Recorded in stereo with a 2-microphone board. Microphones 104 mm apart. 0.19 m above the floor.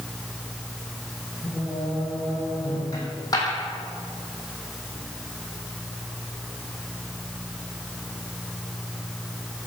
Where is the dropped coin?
35° left (ahead or behind), 4.5 m.